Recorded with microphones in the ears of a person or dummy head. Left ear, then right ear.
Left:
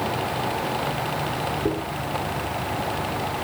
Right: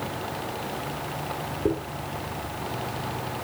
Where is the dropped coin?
50° right (ahead or behind), 3.5 m.